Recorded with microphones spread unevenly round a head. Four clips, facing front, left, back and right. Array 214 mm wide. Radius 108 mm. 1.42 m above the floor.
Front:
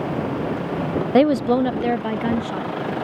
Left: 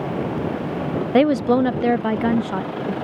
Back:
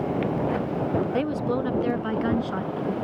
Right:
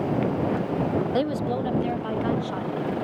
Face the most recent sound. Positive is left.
turn(degrees=90)